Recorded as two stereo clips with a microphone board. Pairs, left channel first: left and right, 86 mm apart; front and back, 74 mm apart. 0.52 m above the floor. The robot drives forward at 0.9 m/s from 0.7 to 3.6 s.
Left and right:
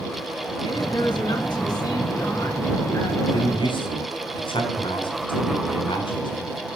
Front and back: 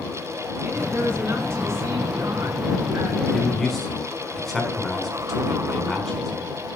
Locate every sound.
0.6 s a woman speaking: 115° left, 5 m; by 3.1 s 135° left, 6 m
3.2 s a man speaking: 85° left, 4.5 m; by 6.5 s 90° left, 4.5 m